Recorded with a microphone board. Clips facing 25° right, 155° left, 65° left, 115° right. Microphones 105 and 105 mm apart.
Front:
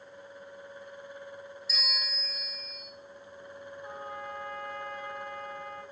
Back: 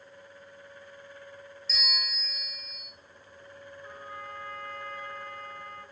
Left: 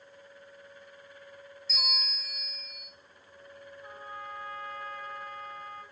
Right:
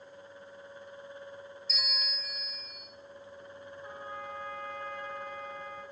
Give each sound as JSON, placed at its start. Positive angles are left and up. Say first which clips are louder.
{"t": 1.7, "sound": "a bell", "louder": "back 3 dB, left 4 dB", "azimuth_deg": 55, "distance_m": 1.8}
{"t": 3.8, "sound": "a trumpet", "louder": "front 3 dB, right 1 dB", "azimuth_deg": 15, "distance_m": 2.0}